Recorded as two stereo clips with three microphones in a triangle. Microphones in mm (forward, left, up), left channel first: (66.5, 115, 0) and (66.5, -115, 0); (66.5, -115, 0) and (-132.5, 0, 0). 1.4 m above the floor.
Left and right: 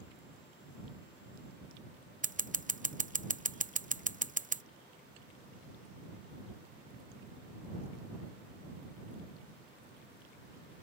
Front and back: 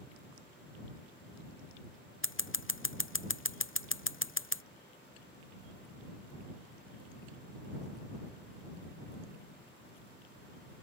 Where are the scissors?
40° right.